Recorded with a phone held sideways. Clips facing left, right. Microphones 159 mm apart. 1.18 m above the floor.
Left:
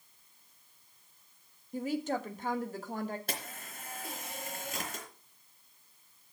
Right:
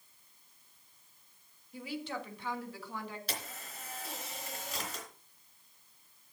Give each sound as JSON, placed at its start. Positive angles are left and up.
{"t": 1.7, "sound": "a woman speaking", "side_deg": 45, "distance_m": 1.5}
{"t": 3.3, "sound": "a camera shutter", "side_deg": 50, "distance_m": 3.0}